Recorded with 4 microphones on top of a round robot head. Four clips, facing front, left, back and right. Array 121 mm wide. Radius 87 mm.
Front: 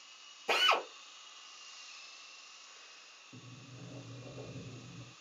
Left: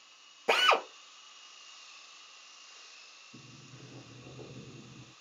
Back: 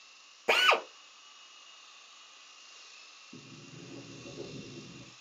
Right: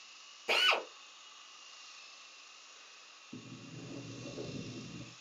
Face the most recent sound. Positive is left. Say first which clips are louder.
# right 6 dB, back 4 dB
turn(degrees=-85)